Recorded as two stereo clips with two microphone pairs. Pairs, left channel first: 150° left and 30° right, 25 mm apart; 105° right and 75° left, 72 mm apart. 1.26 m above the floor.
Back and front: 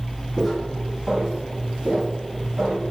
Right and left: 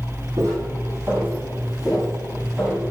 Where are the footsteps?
60° left, 2 m; by 2.8 s 20° right, 4 m.